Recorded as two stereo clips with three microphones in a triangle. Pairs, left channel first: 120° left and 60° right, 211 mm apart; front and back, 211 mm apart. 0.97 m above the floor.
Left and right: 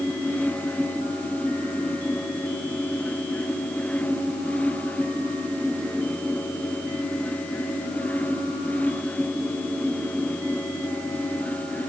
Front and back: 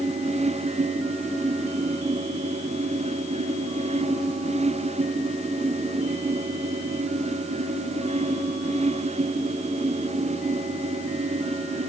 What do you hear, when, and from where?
Only background noise.